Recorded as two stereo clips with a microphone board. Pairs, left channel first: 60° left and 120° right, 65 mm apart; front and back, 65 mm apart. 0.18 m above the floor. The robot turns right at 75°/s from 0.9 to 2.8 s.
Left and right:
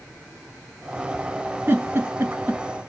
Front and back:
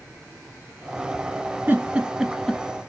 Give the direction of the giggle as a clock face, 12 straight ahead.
5 o'clock.